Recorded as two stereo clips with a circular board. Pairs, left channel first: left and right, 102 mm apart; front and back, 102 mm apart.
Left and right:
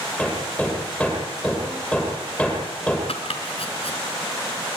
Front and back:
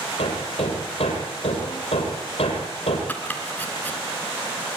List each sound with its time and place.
0.2 s hammering: 10° left, 7.5 m
3.1 s chopping: 75° left, 3.5 m